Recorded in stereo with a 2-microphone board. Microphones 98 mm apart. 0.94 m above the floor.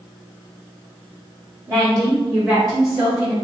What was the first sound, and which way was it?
A woman speaking, 40° right (ahead or behind).